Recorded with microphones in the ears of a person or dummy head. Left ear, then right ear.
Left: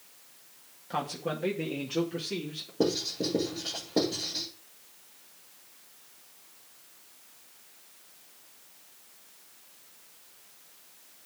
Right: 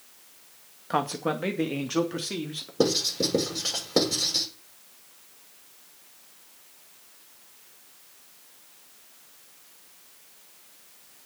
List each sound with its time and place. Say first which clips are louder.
0.9 s a man speaking: right 6 dB; 45° right (ahead or behind), 2 m; by 2.7 s 55° right (ahead or behind), 3.5 m
2.8 s writing: right 5 dB; 70° right (ahead or behind), 6.5 m